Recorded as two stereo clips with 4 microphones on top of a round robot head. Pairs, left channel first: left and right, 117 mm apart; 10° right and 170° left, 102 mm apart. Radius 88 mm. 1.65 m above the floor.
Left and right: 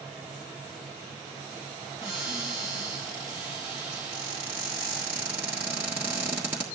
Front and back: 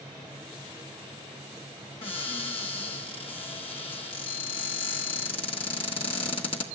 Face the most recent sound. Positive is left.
turn(degrees=-15)